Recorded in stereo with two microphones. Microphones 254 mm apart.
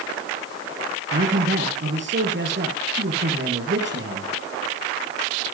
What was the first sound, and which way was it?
A man speaking, 50° right (ahead or behind).